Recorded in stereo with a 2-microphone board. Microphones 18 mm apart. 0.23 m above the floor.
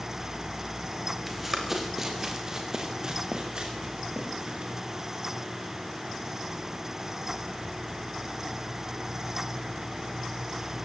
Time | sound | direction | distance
1.3 | running footsteps | 15° right (ahead or behind) | 5 m